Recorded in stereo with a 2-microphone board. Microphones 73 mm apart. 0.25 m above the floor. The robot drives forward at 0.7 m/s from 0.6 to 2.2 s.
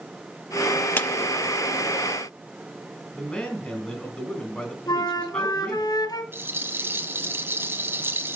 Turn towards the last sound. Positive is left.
turn(degrees=-30)  # may be behind; listen again after turning